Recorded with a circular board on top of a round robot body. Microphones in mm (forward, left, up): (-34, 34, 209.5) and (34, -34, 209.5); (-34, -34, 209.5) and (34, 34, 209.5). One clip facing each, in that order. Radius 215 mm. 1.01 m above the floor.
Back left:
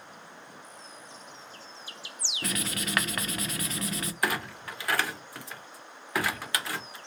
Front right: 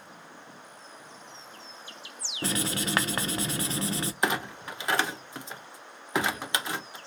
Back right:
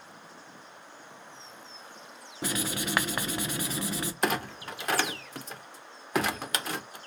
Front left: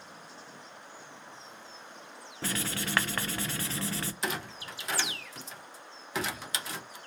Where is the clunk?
110° right, 0.5 m.